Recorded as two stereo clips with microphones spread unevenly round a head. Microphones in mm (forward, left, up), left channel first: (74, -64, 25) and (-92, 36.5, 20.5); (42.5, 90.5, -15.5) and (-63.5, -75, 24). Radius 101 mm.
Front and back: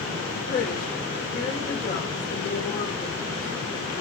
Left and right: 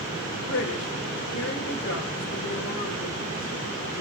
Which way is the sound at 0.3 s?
25° left.